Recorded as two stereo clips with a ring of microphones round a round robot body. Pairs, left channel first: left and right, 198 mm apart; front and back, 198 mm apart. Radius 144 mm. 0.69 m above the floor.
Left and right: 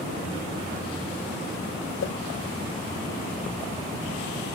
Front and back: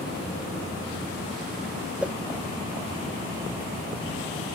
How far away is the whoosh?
About 0.6 m.